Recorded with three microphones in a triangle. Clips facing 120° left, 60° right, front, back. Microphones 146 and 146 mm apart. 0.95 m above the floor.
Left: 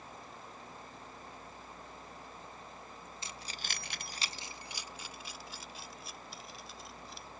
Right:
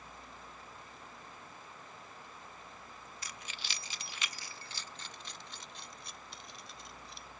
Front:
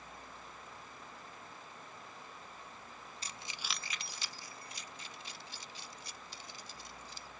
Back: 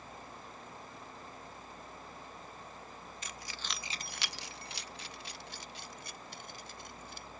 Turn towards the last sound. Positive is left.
turn(degrees=-150)